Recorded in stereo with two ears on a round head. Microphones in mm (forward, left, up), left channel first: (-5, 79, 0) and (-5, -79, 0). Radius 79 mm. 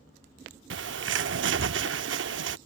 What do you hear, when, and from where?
0.7 s a bird: 75° right (ahead or behind)